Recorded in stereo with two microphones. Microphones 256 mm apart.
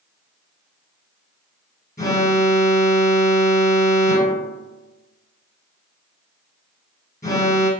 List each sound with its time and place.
2.0 s an alarm: 15° left (ahead or behind), 1.3 m